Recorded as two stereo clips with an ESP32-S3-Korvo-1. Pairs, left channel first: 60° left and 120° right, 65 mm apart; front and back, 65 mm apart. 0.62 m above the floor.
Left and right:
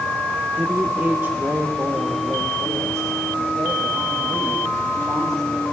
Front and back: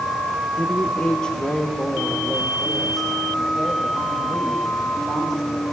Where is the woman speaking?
60° right, 1.1 m; by 5.6 s 95° right, 4 m.